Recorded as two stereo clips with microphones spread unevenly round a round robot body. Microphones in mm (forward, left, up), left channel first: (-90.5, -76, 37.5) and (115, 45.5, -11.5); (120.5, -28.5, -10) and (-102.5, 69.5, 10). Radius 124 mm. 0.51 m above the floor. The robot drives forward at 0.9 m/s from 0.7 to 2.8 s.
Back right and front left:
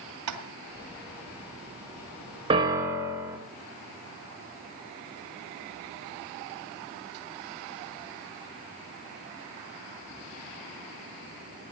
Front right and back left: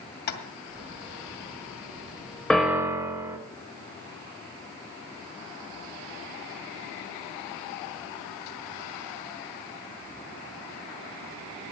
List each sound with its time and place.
0.3 s tapping: 25° left, 2 m
2.5 s a piano: 55° left, 1.3 m; by 3.4 s 75° left, 1.2 m